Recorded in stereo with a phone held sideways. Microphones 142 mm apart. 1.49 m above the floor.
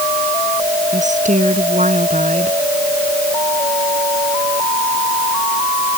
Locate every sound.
0.9 s a woman speaking: 60° right (ahead or behind)